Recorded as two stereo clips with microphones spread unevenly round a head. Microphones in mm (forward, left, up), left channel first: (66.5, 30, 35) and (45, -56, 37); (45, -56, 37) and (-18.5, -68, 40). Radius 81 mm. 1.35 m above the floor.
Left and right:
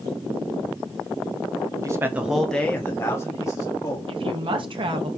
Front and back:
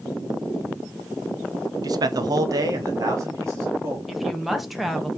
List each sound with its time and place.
1.8 s a man speaking: 160° right, 0.6 m; by 4.0 s 130° left, 1.4 m
4.1 s a woman speaking: 80° right, 1.3 m